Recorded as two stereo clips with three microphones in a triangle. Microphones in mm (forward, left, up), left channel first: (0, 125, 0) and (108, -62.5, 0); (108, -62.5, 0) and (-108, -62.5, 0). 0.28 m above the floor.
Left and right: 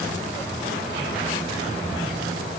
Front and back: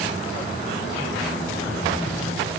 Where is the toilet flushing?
I don't hear a toilet flushing.